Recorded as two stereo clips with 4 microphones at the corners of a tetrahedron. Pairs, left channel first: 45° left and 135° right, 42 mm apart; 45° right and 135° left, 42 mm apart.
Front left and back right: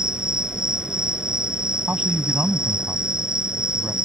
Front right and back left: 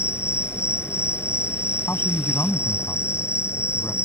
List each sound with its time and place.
0.0 s an insect: 65° right
1.9 s a man speaking: 75° right